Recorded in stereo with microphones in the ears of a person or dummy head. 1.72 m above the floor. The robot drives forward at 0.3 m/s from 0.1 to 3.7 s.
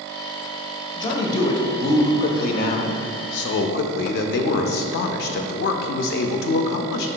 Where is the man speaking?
30° left (ahead or behind), 0.9 m; by 7.1 s 65° left (ahead or behind), 0.5 m.